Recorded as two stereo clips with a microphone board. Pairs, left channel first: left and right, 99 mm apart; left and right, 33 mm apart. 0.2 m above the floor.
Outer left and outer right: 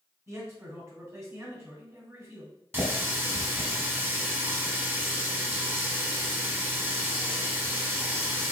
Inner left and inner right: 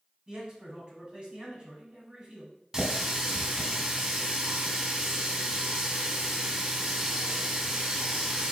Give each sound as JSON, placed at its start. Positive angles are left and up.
{"t": 0.3, "sound": "a man speaking", "side_deg": -30, "distance_m": 1.6}
{"t": 2.7, "sound": "a running tap", "side_deg": -25, "distance_m": 0.8}